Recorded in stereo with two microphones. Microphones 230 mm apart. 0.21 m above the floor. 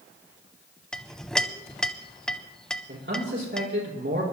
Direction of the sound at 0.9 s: 5° left (ahead or behind).